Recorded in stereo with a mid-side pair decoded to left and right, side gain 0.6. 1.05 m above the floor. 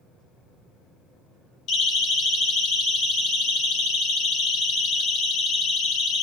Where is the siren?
50° left, 7 m; by 6.2 s 55° left, 10 m.